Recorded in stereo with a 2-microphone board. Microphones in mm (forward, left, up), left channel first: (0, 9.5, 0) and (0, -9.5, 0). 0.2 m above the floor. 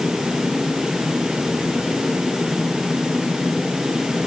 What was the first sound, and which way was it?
Only background noise.